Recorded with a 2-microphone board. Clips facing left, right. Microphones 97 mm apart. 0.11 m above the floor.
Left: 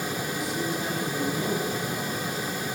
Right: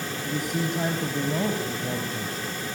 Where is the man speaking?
55° right (ahead or behind), 4 m; by 2.5 s 50° right (ahead or behind), 5.5 m.